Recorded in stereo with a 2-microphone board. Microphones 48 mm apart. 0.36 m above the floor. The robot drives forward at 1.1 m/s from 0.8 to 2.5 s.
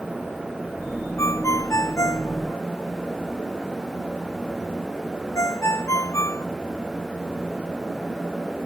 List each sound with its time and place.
1.2 s a ringtone: 85° left; by 6.5 s 75° left (ahead or behind)